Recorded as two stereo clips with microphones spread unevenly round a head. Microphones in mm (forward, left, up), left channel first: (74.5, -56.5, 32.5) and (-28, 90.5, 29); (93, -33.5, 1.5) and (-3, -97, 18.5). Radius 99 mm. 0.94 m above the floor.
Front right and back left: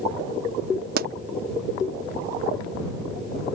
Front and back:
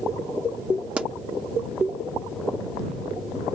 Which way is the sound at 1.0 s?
145° left.